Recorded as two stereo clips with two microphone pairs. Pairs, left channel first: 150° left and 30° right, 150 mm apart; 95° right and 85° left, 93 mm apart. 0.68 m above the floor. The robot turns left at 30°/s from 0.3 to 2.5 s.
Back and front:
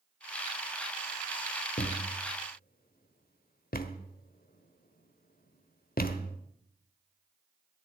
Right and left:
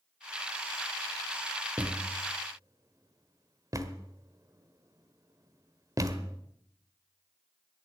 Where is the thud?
160° left, 1.1 m; by 6.4 s 135° left, 1.1 m.